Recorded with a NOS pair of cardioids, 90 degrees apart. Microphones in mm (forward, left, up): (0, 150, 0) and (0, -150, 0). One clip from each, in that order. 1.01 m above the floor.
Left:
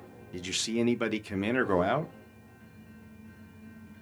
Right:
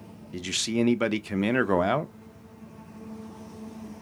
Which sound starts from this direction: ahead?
A man speaking, at 0.3 s.